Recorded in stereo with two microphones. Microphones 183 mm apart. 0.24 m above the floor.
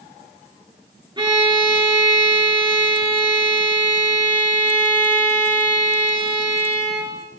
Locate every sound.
1.2 s a violin: 25° right (ahead or behind), 3 m